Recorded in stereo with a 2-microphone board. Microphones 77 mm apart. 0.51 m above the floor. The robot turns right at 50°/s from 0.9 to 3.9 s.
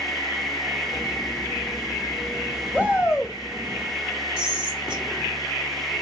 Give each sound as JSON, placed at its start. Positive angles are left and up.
{"t": 2.7, "sound": "a shout", "azimuth_deg": -25, "distance_m": 1.4}
{"t": 4.4, "sound": "whispering", "side_deg": -15, "distance_m": 1.7}